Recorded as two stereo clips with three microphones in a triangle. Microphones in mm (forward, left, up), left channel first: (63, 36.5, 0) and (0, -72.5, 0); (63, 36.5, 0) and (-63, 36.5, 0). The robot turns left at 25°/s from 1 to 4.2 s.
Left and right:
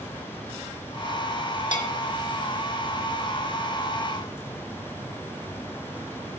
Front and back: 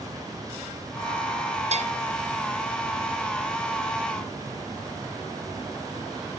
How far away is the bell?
About 2.5 m.